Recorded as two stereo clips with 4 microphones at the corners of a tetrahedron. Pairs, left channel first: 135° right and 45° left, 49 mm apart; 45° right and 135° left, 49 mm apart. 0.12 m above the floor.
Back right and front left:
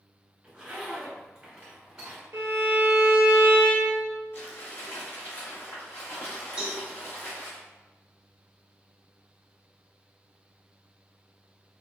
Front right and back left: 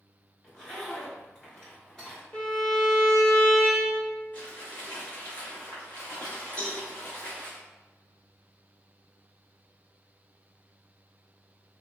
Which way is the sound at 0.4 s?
20° left.